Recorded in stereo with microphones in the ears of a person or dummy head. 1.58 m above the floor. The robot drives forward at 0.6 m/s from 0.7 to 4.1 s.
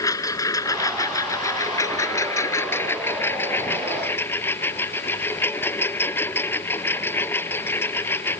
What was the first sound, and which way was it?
A lawn mower, 20° left (ahead or behind).